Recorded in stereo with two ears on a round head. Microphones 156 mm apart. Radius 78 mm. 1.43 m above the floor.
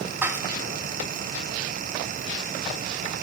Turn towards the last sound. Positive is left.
turn(degrees=-10)  # may be behind; listen again after turning